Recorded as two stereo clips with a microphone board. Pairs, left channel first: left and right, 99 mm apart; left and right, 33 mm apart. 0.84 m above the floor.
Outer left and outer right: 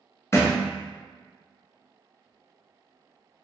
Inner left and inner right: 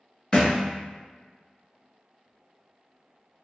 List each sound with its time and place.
0.3 s a thud: 30° left (ahead or behind), 0.6 m